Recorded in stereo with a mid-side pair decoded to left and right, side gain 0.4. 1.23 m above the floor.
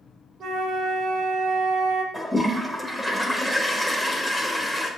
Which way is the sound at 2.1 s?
10° left.